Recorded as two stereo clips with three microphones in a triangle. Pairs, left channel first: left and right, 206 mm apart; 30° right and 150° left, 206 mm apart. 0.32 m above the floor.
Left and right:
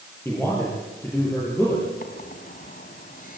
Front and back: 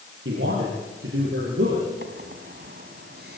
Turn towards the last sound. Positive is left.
turn(degrees=125)